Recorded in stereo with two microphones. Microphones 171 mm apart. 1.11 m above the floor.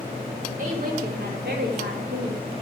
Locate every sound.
0.6 s a woman speaking: 50° right (ahead or behind), 2 m; by 2.5 s 55° right (ahead or behind), 2.5 m